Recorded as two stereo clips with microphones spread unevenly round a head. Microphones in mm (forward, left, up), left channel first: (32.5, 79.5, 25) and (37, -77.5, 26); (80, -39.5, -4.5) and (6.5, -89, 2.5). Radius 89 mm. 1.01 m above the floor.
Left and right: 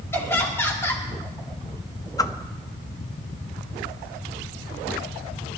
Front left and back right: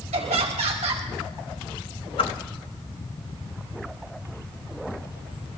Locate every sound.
0.1 s laughter: 170° left, 2 m
2.2 s a whoosh: 25° left, 0.6 m